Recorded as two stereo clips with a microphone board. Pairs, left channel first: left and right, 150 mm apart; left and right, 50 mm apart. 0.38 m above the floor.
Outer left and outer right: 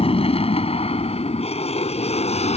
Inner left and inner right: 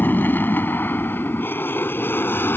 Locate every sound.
0.0 s an aircraft: 40° left (ahead or behind); by 2.6 s 45° left (ahead or behind)